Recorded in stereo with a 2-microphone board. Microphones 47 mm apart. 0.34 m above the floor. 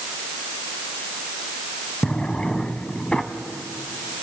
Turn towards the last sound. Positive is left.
turn(degrees=20)  # may be behind; listen again after turning